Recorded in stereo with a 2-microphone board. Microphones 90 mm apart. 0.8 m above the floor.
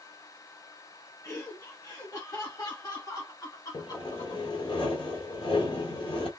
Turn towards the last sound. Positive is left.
turn(degrees=75)  # may be behind; listen again after turning